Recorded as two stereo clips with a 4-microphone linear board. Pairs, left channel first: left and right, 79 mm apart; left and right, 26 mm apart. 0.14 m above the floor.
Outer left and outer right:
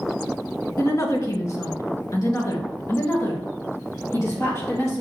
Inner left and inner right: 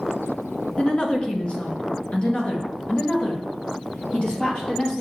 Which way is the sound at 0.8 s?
40° left (ahead or behind).